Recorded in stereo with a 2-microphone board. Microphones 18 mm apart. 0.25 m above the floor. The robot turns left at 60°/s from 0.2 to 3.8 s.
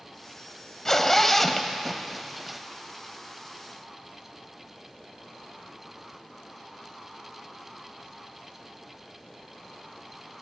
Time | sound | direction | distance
0.8 | a zipper | 20° left (ahead or behind) | 0.6 m